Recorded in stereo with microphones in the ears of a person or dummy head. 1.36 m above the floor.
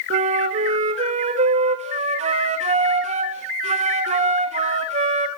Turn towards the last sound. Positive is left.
turn(degrees=-40)  # may be behind; listen again after turning